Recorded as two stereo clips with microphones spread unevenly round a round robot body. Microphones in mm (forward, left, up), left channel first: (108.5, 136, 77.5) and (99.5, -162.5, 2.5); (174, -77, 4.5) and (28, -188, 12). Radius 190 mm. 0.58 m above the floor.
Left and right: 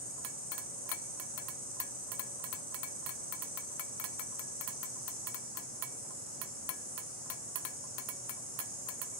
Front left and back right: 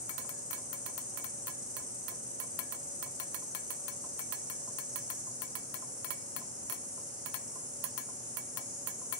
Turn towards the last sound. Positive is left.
turn(degrees=-80)